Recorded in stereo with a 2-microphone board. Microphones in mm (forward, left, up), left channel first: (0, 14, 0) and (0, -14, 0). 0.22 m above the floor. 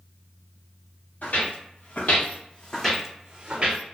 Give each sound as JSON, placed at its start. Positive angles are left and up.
{"t": 1.2, "sound": "footsteps", "side_deg": 80, "distance_m": 1.5}